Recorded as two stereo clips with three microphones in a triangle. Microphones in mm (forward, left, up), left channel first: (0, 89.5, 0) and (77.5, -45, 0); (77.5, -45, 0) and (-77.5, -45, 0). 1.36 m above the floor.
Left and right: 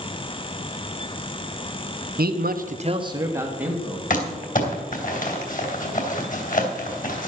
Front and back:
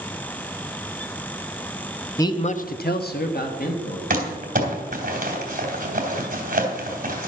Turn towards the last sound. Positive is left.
turn(degrees=150)